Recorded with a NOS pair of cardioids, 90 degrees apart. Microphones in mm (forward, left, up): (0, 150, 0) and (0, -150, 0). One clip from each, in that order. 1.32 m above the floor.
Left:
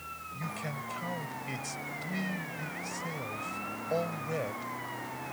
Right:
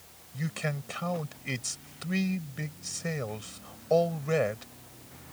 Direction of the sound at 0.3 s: 50° right.